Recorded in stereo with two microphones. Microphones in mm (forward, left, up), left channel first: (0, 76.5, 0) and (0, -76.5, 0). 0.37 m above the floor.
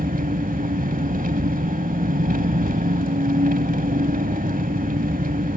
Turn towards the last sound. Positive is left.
turn(degrees=-65)  # may be behind; listen again after turning